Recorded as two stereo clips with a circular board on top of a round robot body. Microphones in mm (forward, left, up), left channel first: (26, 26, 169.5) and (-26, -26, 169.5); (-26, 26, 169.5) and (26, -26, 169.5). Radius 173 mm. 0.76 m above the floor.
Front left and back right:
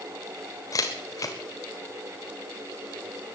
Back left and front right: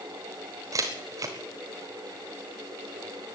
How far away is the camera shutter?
About 0.6 m.